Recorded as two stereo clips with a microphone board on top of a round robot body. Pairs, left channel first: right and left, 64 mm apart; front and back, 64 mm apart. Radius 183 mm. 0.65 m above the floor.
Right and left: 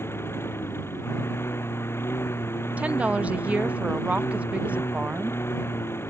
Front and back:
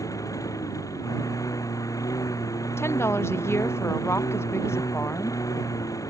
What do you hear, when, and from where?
0.0 s a lawn mower: 35° right
2.8 s a woman speaking: 30° left